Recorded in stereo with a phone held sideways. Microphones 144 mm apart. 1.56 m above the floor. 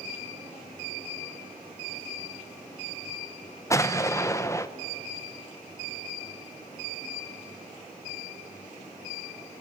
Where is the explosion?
20° left (ahead or behind), 0.9 m.